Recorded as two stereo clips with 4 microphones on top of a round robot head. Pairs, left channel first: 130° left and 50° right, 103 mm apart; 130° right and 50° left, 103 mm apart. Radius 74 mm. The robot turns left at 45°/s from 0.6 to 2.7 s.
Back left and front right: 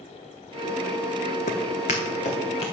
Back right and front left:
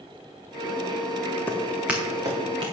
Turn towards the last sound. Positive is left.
turn(degrees=90)